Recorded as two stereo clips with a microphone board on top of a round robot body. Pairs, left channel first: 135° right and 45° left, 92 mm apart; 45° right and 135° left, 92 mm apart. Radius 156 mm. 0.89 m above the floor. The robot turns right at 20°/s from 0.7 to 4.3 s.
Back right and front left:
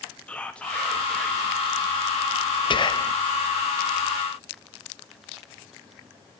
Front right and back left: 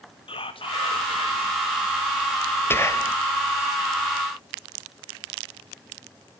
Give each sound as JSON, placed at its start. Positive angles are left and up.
{"t": 0.3, "sound": "whispering", "azimuth_deg": -55, "distance_m": 2.0}
{"t": 2.7, "sound": "whispering", "azimuth_deg": -110, "distance_m": 1.2}